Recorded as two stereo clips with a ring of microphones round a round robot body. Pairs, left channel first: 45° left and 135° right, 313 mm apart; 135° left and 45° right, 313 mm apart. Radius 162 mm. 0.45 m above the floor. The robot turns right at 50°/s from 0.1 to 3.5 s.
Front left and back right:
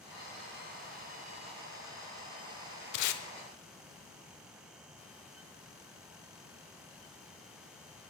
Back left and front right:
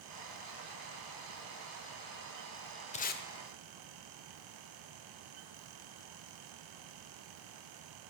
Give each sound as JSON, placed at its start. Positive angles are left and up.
{"t": 2.9, "sound": "tape being pulled", "azimuth_deg": 65, "distance_m": 0.9}